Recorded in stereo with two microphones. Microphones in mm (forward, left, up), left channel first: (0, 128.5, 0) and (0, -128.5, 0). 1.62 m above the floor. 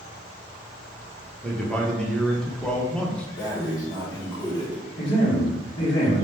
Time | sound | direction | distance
1.4 | a man speaking | 5° left (ahead or behind) | 0.8 m
3.4 | breathing | 15° left (ahead or behind) | 1.4 m
5.0 | a man speaking | 50° left (ahead or behind) | 1.4 m